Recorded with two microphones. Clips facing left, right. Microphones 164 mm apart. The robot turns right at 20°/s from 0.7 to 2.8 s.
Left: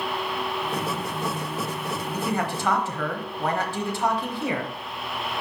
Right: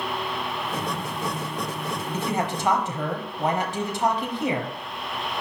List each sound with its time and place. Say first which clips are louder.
2.1 s a man speaking: right 1 dB; 25° right (ahead or behind), 1.0 m; by 4.7 s 20° right (ahead or behind), 1.0 m